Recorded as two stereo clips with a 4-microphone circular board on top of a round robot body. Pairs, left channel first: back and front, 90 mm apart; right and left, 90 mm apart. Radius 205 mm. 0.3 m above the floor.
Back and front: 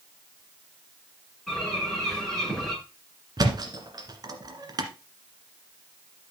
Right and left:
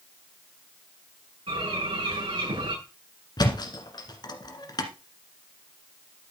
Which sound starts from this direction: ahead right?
A thud, at 3.4 s.